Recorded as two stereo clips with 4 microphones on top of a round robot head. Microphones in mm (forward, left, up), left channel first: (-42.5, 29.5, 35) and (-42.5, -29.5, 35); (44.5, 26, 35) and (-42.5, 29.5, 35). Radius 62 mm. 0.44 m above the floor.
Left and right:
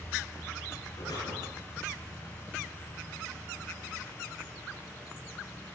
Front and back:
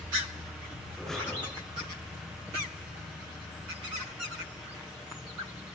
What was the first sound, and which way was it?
Breathing, 85° left.